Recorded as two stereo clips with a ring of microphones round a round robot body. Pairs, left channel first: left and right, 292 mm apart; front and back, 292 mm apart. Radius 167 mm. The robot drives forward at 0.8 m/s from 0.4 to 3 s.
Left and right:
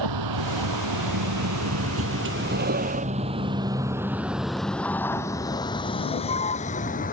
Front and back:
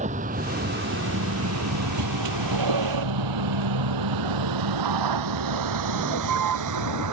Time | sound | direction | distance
0.0 | a vehicle | 110° right | ?